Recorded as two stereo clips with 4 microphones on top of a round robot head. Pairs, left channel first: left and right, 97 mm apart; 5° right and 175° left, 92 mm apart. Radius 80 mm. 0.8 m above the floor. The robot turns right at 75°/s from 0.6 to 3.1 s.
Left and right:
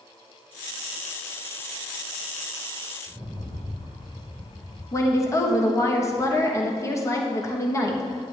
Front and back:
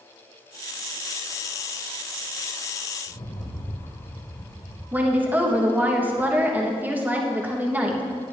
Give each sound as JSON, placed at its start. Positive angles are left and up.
{"t": 3.1, "sound": "a rattle", "azimuth_deg": -20, "distance_m": 1.7}
{"t": 4.9, "sound": "a woman speaking", "azimuth_deg": 115, "distance_m": 1.1}